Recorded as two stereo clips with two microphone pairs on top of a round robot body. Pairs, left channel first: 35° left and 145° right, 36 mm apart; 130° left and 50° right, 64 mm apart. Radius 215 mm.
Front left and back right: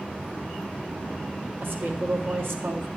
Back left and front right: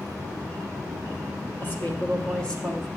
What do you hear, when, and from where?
1.6 s a woman speaking: 170° right, 1.6 m; by 2.9 s 145° right, 1.6 m